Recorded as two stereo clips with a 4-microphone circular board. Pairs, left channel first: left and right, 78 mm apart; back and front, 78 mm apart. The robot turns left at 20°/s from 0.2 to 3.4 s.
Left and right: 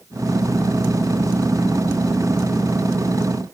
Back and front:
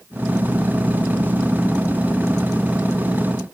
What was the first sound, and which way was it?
Only background noise.